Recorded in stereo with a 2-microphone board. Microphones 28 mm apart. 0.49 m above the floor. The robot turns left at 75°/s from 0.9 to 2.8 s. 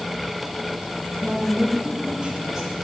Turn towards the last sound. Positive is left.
turn(degrees=175)